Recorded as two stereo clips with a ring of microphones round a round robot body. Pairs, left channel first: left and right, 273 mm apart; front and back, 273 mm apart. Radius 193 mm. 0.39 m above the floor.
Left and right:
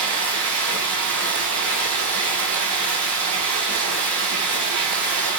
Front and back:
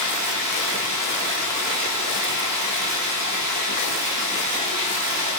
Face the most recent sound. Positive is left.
turn(degrees=-120)